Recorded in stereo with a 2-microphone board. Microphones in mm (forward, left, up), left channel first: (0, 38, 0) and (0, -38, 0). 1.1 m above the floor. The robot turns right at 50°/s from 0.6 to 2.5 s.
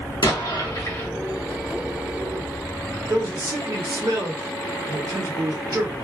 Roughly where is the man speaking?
Right.